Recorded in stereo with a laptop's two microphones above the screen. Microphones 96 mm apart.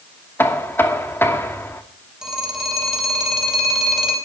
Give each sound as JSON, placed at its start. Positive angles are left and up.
{"t": 0.4, "sound": "knocking", "side_deg": 25, "distance_m": 2.0}
{"t": 2.2, "sound": "a phone ringing", "side_deg": -5, "distance_m": 4.5}